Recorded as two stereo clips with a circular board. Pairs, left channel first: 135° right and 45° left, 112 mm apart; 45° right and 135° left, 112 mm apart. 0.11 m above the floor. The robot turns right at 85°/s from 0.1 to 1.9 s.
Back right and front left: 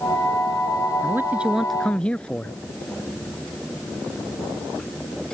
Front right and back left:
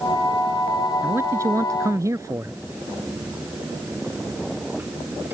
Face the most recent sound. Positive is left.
turn(degrees=155)